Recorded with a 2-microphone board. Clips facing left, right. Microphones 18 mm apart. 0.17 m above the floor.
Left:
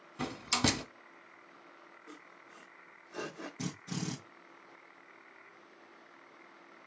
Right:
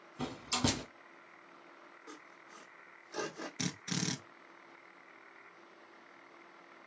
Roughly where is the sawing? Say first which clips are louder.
Right 1 dB; right.